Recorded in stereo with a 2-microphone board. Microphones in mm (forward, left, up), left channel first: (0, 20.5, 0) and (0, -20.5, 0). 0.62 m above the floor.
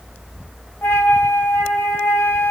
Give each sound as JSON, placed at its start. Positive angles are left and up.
{"t": 0.8, "sound": "a flute", "side_deg": 75, "distance_m": 3.0}